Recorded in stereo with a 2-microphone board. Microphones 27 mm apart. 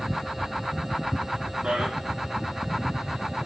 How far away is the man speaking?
About 2 m.